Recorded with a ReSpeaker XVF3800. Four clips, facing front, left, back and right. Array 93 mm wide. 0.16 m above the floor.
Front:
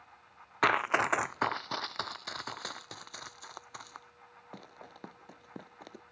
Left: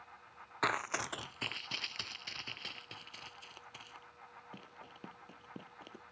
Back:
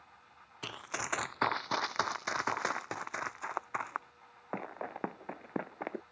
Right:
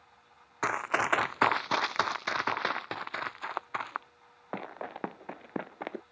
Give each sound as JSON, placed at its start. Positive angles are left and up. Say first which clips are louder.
{"t": 0.6, "sound": "running footsteps", "louder": "right 6 dB, front 14 dB", "azimuth_deg": -10}